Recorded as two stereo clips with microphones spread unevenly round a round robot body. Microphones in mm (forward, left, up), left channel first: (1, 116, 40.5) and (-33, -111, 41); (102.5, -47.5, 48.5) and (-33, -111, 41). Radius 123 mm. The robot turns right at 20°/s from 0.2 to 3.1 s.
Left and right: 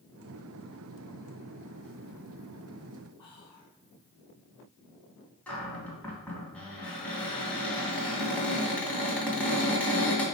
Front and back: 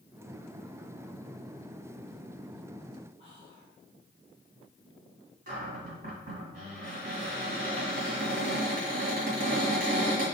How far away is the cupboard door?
About 2 m.